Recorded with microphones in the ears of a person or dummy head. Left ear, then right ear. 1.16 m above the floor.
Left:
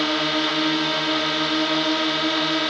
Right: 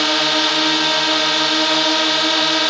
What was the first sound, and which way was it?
A drone, 30° right (ahead or behind).